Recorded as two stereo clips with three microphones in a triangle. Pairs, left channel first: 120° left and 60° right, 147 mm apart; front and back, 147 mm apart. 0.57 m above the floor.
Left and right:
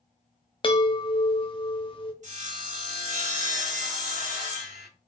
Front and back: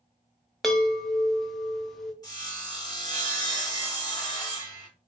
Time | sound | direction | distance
0.6 | a chime | 85° left | 0.6 m
2.2 | sawing | 55° right | 1.1 m